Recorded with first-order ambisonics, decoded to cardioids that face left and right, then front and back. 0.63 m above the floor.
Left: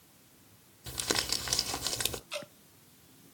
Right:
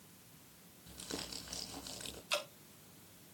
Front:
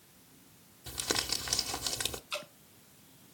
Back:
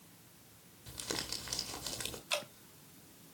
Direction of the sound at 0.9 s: 70° left.